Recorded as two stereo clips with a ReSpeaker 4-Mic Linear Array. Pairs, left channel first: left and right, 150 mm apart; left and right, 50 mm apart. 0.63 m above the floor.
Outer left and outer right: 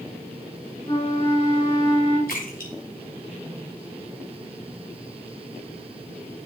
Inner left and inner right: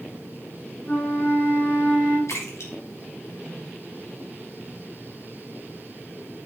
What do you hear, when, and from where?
0.9 s a flute: 40° left (ahead or behind), 7.5 m
2.3 s a splash: 70° left (ahead or behind), 2.5 m